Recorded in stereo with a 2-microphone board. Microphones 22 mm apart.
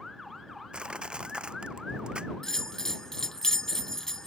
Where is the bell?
20° left (ahead or behind).